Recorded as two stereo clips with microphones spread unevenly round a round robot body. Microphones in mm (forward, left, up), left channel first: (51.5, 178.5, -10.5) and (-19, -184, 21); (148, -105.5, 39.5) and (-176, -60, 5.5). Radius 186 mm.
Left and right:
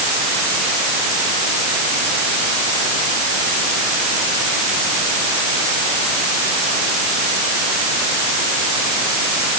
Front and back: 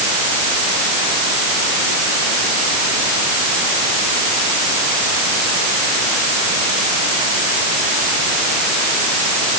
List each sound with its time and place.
Only background noise.